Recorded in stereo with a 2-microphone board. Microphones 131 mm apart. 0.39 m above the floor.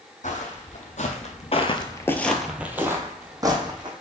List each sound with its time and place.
0.2 s footsteps: 65° left (ahead or behind), 1.1 m; by 3.9 s 35° right (ahead or behind), 1.2 m